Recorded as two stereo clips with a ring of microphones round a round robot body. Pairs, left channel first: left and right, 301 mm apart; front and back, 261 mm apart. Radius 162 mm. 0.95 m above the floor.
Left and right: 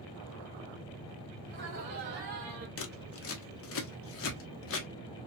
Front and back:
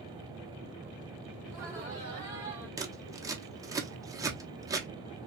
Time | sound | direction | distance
1.4 | laughter | 125° right | 1.5 m
2.8 | scissors | 105° left | 0.9 m